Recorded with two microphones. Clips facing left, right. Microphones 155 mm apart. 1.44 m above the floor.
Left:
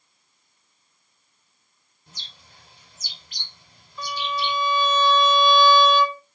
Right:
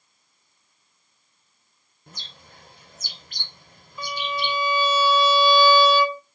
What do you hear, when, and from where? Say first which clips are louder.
2.1 s a bird: right 4 dB; 55° right (ahead or behind), 2.5 m
4.0 s a violin: left 1 dB; 10° right (ahead or behind), 1.7 m